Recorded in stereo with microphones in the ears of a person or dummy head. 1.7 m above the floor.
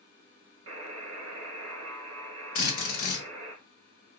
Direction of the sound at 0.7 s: 85° right.